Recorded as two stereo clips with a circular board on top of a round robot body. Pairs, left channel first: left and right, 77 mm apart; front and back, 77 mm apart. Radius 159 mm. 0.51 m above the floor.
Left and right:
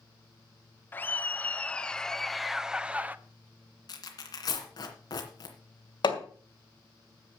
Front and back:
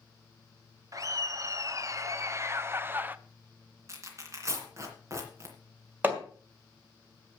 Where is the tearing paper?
125° left, 2.5 m.